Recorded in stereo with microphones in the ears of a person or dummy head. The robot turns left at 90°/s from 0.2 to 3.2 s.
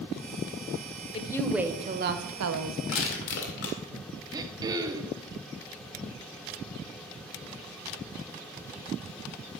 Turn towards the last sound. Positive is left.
turn(degrees=-20)  # may be behind; listen again after turning